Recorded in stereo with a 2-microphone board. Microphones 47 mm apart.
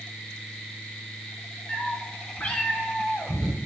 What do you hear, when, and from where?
1.7 s a cat meowing: 35° left (ahead or behind), 2.0 m; by 3.6 s 5° left (ahead or behind), 0.7 m